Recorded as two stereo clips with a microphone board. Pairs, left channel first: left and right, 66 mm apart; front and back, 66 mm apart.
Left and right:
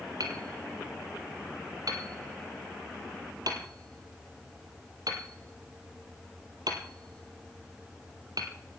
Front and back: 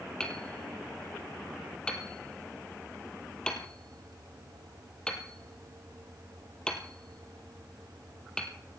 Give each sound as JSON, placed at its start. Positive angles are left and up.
{"t": 0.2, "sound": "hammering", "azimuth_deg": -80, "distance_m": 2.0}